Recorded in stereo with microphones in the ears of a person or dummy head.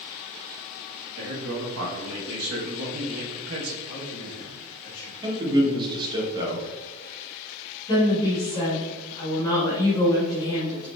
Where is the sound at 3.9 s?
65° left (ahead or behind), 1.4 m.